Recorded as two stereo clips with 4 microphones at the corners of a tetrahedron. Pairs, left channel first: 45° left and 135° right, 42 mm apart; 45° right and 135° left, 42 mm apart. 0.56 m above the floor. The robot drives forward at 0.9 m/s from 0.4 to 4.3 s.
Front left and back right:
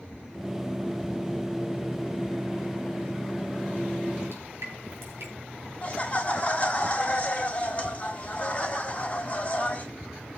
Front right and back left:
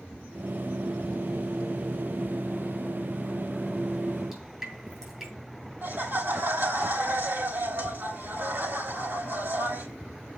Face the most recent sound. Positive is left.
turn(degrees=105)